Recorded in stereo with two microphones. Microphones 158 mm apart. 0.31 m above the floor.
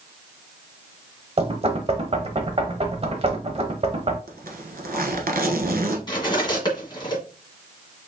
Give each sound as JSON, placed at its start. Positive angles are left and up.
{"t": 1.4, "sound": "knocking", "side_deg": -40, "distance_m": 1.0}
{"t": 4.3, "sound": "a zipper", "side_deg": -70, "distance_m": 1.1}
{"t": 6.1, "sound": "cutlery clinking", "side_deg": 30, "distance_m": 1.7}